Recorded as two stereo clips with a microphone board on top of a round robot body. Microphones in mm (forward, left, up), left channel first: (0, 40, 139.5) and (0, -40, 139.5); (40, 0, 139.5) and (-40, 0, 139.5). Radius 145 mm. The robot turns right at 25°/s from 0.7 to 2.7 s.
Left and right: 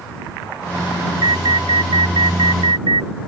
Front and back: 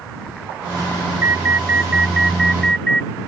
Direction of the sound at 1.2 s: 120° right.